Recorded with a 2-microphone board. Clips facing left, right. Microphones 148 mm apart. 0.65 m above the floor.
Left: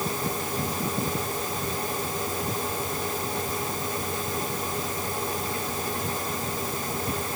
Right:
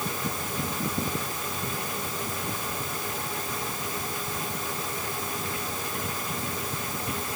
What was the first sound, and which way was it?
Only background noise.